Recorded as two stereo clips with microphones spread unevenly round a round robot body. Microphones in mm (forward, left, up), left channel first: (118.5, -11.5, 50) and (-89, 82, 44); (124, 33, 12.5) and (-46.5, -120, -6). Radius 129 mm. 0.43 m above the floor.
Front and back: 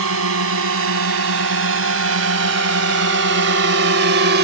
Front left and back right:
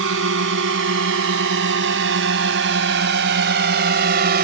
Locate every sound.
0.0 s a drone: straight behind